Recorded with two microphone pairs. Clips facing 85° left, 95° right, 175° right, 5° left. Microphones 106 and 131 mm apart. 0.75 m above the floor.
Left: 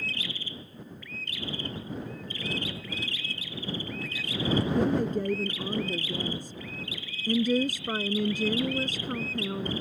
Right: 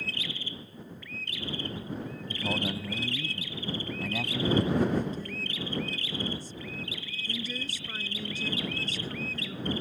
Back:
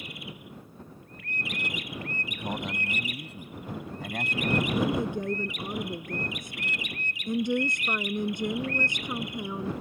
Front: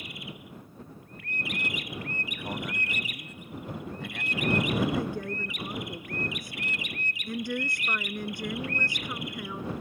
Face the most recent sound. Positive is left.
turn(degrees=115)